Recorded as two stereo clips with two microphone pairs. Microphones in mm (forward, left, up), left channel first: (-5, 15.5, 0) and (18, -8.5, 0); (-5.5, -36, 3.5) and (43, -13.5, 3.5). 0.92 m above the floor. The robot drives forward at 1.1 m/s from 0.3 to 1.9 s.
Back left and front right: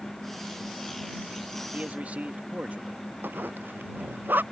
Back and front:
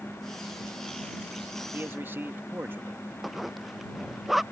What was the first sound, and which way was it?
A man speaking, 15° right.